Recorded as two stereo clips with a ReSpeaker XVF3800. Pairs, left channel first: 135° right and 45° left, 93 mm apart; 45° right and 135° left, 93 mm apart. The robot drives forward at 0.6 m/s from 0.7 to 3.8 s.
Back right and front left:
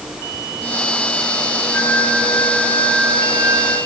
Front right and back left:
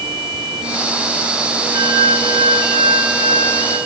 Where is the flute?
145° left, 7.5 m; by 3.8 s 150° left, 8.5 m.